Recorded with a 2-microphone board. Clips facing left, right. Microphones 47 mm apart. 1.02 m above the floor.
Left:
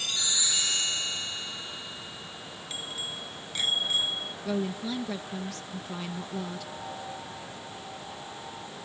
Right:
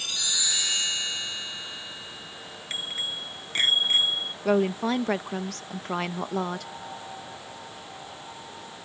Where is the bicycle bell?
45° right (ahead or behind).